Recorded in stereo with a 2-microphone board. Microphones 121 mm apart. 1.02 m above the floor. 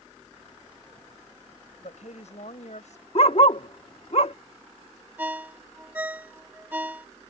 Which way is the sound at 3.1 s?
55° left (ahead or behind).